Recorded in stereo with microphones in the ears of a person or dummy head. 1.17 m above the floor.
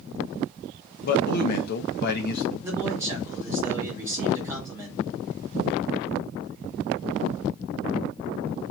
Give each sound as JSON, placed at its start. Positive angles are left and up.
{"t": 1.0, "sound": "a man speaking", "side_deg": 55, "distance_m": 0.8}
{"t": 2.6, "sound": "a man speaking", "side_deg": -10, "distance_m": 2.0}